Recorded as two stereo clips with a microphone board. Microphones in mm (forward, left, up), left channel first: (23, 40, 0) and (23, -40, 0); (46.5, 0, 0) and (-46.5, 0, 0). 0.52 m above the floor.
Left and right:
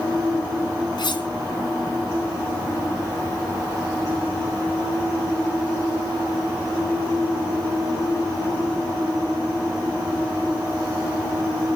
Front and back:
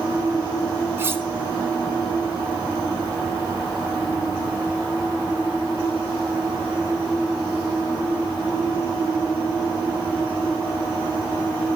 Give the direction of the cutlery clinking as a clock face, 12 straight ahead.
8 o'clock.